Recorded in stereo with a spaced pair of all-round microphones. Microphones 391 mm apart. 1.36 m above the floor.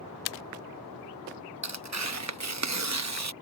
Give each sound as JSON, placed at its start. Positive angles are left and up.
{"t": 1.6, "sound": "tearing paper", "side_deg": -45}